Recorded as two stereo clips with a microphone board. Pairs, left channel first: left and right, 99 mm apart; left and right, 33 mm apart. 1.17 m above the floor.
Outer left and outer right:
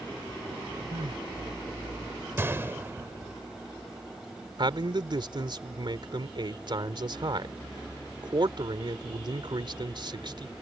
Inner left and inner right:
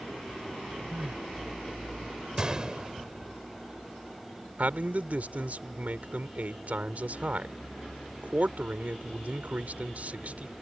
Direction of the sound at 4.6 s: 55° right (ahead or behind).